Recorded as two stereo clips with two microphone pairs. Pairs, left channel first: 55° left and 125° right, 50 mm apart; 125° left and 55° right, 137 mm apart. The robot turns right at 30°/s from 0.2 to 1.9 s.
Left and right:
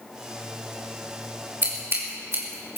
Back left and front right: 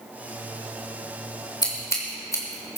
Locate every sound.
1.6 s scissors: 175° right, 2.5 m; by 2.8 s 165° right, 2.5 m